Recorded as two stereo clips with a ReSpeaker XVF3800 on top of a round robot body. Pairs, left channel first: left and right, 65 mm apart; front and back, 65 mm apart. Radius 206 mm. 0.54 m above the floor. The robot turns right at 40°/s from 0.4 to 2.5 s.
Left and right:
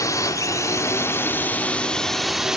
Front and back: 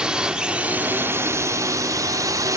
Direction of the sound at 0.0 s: 105° left.